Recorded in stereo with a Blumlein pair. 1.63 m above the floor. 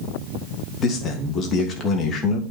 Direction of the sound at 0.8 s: 25° left.